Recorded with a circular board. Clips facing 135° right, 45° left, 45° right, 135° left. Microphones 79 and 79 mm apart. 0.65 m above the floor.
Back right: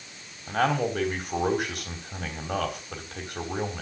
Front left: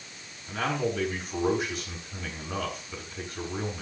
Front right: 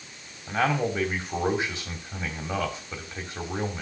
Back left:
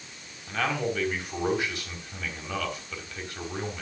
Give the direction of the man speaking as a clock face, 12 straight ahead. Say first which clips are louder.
Back right 4 dB, front right 3 dB; 4 o'clock.